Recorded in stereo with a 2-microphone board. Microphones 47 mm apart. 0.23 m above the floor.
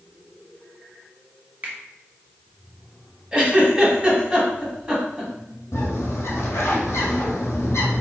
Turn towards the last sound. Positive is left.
turn(degrees=65)  # may be behind; listen again after turning